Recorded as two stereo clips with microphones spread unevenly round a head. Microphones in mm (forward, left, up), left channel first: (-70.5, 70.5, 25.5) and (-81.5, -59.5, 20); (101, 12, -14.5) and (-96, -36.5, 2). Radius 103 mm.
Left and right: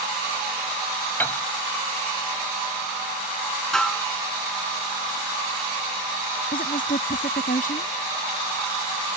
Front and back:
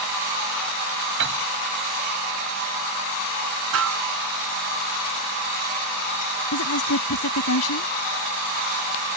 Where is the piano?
160° left.